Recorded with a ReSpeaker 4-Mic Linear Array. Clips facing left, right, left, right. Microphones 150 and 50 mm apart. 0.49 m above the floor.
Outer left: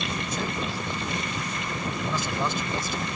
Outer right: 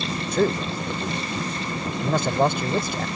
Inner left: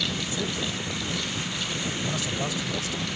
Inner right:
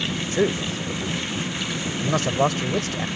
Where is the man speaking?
60° right (ahead or behind).